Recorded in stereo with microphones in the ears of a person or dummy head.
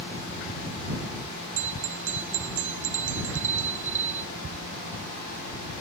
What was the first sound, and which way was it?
A bell, 70° right (ahead or behind).